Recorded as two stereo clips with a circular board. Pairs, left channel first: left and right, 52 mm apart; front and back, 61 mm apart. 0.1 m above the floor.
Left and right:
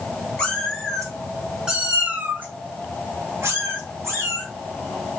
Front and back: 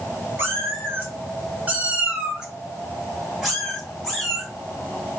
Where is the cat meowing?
155° left, 1.1 m; by 4.5 s 80° right, 1.8 m.